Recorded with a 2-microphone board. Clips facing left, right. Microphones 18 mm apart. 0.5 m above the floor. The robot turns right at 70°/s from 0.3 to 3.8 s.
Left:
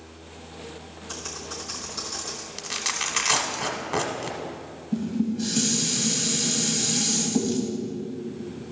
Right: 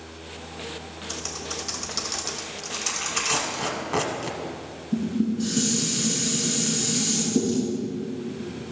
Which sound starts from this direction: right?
Typing on a keyboard, at 1.1 s.